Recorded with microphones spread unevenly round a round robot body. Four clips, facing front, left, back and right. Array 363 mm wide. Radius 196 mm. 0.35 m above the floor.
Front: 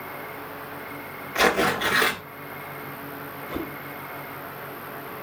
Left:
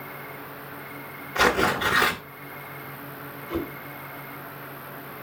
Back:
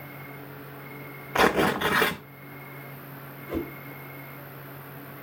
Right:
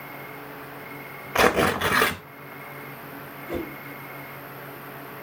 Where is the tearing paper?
110° right, 0.5 m.